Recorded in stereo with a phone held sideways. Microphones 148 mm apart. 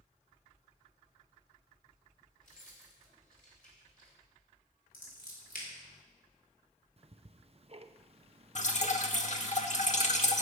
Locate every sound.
2.4 s keys jangling: 65° left (ahead or behind), 3 m
4.9 s scissors: 80° left, 3.5 m
7.0 s ticking: 45° right (ahead or behind), 0.6 m
8.6 s dripping: 55° left (ahead or behind), 1.1 m